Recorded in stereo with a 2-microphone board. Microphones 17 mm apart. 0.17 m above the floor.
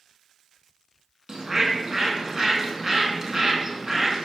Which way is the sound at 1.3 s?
35° right (ahead or behind).